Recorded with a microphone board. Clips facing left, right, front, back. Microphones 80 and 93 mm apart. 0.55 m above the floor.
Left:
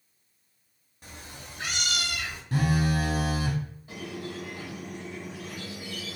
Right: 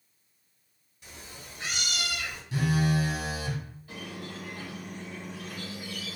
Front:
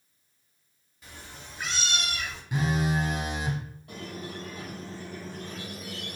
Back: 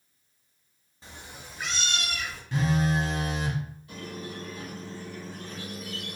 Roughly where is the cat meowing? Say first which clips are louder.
Left 2 dB, back 1 dB; behind left.